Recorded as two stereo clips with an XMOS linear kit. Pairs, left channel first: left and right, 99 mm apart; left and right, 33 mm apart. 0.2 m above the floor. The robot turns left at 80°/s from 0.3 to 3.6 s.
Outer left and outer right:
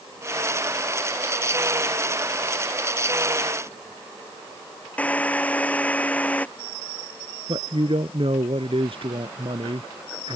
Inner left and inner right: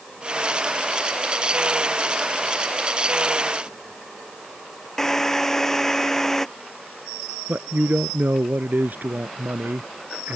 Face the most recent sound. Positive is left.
turn(degrees=-65)  # may be behind; listen again after turning